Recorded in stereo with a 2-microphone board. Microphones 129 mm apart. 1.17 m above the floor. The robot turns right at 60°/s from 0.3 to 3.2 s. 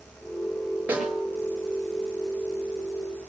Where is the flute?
I don't hear a flute.